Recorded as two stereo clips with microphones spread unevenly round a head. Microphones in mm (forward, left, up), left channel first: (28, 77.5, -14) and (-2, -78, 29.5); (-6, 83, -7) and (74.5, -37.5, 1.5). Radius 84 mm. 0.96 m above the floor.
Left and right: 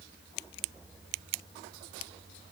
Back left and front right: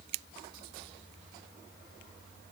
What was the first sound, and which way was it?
Only background noise.